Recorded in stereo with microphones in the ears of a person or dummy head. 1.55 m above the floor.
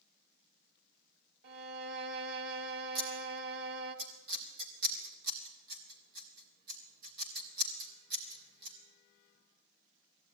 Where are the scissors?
50° right (ahead or behind), 3.5 m.